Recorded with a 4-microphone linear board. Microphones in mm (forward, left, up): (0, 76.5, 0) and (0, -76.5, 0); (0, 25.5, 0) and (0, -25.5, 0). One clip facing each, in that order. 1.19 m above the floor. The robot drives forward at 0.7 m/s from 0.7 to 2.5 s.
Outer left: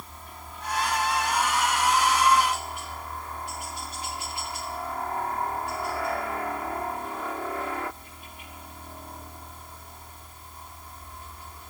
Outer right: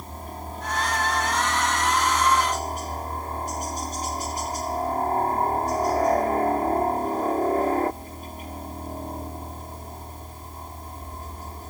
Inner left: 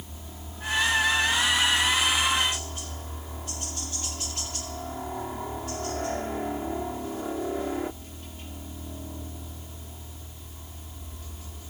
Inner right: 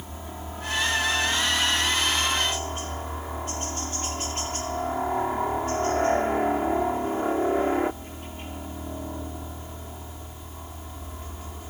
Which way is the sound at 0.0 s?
45° right (ahead or behind).